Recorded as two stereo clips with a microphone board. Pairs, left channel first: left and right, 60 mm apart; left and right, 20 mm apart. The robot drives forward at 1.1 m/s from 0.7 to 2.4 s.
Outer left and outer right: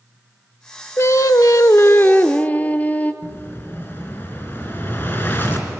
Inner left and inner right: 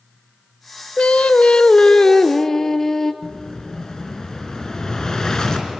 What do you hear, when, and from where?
1.0 s singing: 55° left (ahead or behind), 0.7 m; by 3.1 s 30° left (ahead or behind), 1.3 m
3.2 s an explosion: 35° left (ahead or behind), 3 m